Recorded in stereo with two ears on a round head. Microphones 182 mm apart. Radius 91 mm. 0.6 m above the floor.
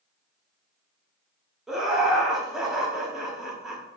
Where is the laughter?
Centre (ahead or behind), 1.0 m.